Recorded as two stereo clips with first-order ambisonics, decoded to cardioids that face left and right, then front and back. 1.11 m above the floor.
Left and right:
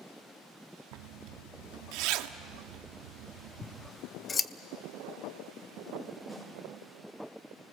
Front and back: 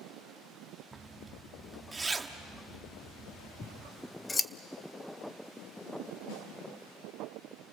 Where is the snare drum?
5° left, 8 m.